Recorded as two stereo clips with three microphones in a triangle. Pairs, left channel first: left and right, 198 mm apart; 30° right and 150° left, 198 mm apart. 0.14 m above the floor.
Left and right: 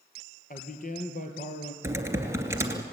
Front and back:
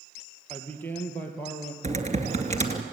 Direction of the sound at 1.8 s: 165° right.